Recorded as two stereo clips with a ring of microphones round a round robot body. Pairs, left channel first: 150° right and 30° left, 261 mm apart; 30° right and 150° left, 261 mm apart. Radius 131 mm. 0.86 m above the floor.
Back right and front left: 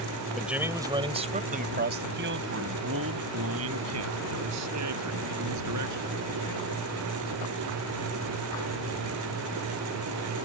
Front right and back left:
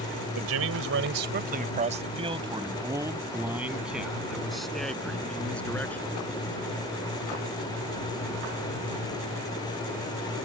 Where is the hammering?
No hammering in this recording.